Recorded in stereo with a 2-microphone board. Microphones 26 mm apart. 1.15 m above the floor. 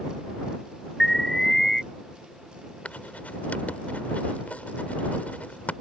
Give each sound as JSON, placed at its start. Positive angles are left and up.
{"t": 1.0, "sound": "an alarm", "side_deg": 15}
{"t": 2.9, "sound": "writing", "side_deg": 70}